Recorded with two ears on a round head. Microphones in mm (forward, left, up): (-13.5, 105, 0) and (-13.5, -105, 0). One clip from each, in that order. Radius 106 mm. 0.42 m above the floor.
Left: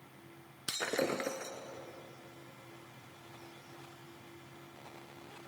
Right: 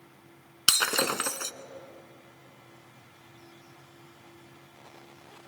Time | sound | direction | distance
0.7 | breaking glass | 75° right (ahead or behind) | 0.9 m